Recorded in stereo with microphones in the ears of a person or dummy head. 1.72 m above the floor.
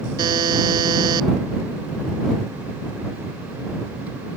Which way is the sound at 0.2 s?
25° right (ahead or behind).